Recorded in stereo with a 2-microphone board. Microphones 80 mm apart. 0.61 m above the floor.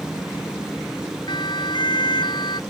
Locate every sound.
1.3 s a siren: 70° left (ahead or behind)